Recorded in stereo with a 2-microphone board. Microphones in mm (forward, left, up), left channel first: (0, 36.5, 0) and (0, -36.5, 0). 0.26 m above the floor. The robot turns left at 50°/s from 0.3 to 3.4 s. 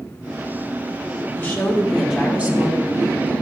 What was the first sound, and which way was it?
A woman speaking, 30° left.